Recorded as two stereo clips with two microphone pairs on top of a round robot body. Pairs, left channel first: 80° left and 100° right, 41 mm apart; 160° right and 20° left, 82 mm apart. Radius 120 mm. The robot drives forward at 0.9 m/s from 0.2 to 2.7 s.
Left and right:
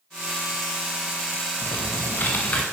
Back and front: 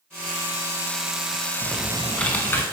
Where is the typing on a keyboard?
85° left, 0.8 m; by 2.6 s 140° left, 1.2 m.